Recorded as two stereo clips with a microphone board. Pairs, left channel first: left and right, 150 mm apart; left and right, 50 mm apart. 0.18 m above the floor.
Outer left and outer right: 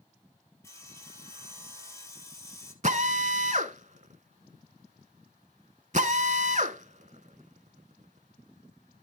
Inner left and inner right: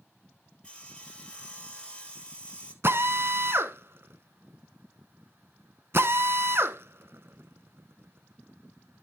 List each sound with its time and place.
0.6 s sawing: 20° left (ahead or behind), 1.7 m
2.8 s a drill: 55° right (ahead or behind), 0.7 m